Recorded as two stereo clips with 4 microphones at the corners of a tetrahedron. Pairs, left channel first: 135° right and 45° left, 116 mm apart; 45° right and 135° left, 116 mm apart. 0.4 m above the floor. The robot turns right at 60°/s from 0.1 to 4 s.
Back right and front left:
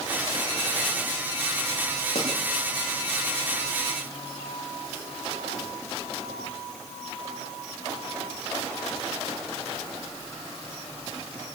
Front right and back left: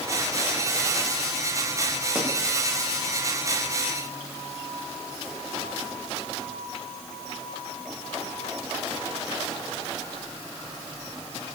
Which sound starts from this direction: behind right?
A pop, at 2.1 s.